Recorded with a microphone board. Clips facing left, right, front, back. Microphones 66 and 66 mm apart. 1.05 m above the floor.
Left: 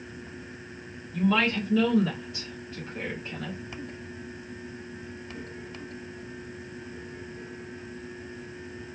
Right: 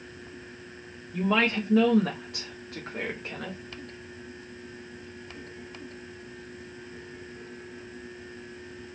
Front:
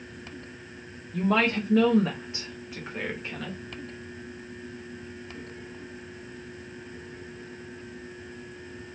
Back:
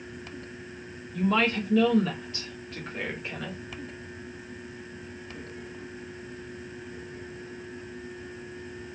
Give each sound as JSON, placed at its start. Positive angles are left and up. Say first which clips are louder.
{"t": 1.1, "sound": "a woman speaking", "louder": "even, front 1 dB", "azimuth_deg": -25, "distance_m": 0.9}